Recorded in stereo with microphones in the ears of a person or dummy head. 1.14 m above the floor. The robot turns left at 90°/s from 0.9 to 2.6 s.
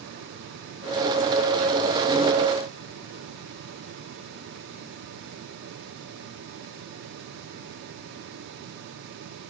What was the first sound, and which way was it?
Only background noise.